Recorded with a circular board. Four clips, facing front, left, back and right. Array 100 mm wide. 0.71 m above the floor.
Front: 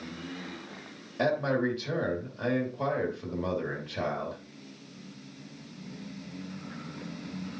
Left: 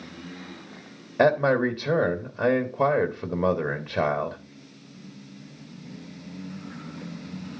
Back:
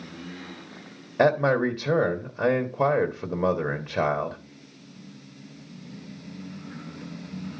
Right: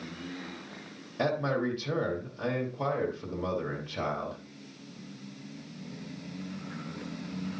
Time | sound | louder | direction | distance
1.2 | a man speaking | left 9 dB, back 7 dB | 135° left | 1.2 m